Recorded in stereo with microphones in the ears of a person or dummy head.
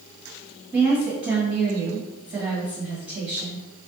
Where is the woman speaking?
20° right (ahead or behind), 1.3 m.